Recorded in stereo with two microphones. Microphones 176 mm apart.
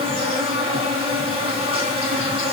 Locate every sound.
0.0 s an insect: 35° right (ahead or behind), 0.9 m